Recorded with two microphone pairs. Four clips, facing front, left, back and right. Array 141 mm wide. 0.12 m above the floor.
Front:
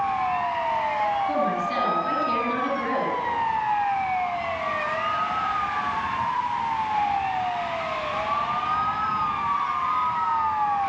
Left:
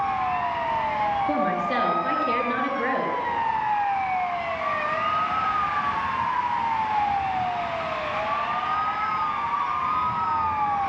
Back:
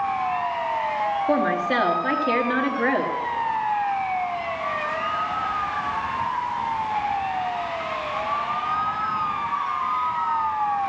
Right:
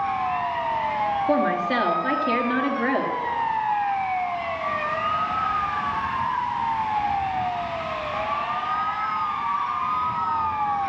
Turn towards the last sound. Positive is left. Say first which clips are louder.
# right 2 dB, back 3 dB
turn(degrees=-170)